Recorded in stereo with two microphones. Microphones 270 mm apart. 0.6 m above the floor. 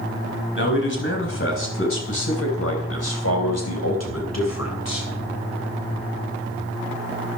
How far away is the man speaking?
About 4 m.